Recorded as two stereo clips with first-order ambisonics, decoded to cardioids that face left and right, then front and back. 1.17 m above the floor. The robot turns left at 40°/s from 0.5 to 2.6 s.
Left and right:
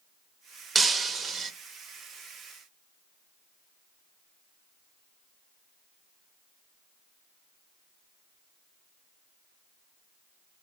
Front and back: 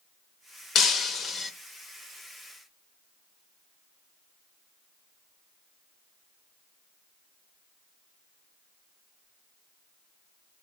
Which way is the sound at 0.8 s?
30° right.